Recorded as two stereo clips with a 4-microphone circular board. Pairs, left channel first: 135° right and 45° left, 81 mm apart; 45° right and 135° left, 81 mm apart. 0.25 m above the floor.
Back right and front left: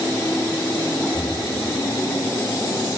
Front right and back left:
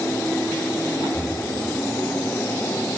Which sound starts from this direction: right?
Breathing, at 1.1 s.